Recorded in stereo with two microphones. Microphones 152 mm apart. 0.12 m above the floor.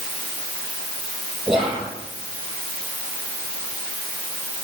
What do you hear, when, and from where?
1.5 s whispering: centre (ahead or behind), 4.5 m